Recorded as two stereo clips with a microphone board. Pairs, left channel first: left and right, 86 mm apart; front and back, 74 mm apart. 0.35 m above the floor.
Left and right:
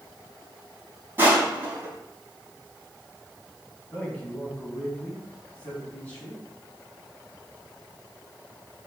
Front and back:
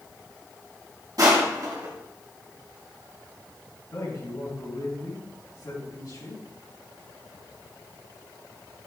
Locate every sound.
1.2 s crushing: 150° right, 2.5 m
3.9 s a man speaking: 20° left, 3.5 m